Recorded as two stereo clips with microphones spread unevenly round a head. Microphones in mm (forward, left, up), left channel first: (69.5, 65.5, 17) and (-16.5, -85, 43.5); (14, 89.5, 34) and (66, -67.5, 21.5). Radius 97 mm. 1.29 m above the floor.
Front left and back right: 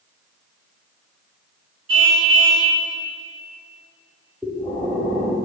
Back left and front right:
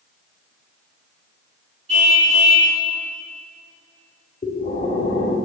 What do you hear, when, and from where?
1.9 s a car horn: 130° right, 4 m
4.4 s breathing: 160° left, 1.5 m